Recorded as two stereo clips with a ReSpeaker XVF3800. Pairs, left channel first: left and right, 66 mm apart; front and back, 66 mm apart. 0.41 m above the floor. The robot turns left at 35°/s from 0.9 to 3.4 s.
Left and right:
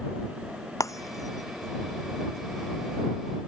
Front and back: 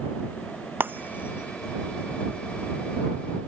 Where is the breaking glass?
120° left; by 3.5 s 35° left.